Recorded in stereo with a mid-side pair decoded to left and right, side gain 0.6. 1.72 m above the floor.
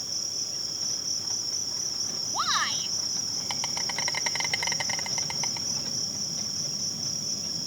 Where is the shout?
Straight ahead.